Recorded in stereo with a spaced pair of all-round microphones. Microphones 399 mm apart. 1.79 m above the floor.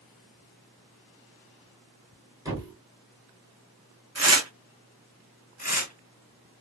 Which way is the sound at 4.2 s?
40° right (ahead or behind).